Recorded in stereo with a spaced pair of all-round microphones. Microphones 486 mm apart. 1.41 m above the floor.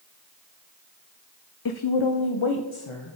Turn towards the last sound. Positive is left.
turn(degrees=85)